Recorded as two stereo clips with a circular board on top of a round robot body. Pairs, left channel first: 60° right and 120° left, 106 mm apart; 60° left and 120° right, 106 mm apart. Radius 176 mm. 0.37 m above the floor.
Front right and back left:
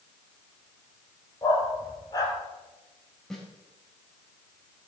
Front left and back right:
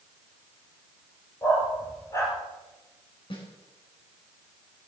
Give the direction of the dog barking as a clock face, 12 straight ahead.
12 o'clock.